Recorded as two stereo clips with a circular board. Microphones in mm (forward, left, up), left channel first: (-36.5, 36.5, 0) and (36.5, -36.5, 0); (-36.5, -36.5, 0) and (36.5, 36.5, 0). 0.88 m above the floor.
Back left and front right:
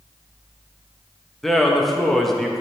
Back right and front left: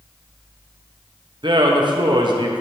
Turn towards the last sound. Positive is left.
turn(degrees=50)